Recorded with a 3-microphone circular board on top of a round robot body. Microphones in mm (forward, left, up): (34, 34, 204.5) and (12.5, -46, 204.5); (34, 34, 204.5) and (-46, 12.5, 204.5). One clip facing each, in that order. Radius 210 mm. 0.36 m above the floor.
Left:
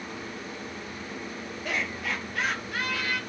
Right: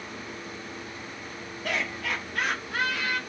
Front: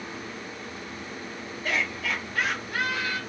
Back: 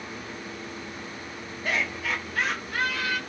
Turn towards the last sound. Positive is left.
turn(degrees=-20)